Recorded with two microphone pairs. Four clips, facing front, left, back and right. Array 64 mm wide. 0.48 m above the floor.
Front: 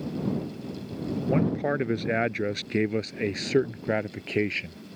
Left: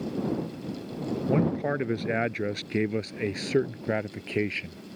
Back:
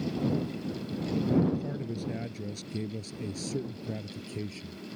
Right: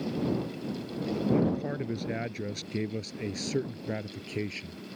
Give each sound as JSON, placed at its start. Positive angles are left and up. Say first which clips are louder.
{"t": 1.3, "sound": "a man speaking", "louder": "left 2 dB, front 4 dB", "azimuth_deg": 30}